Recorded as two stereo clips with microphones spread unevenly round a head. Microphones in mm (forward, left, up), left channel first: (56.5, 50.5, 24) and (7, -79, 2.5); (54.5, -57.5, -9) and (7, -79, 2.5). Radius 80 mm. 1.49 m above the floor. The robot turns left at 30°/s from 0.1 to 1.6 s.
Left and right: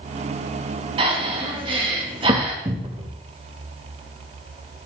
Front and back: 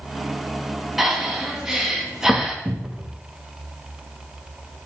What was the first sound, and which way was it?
Breathing, 115° right.